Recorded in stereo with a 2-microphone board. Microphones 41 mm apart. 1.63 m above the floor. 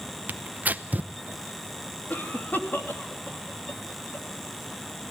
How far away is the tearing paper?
About 0.8 m.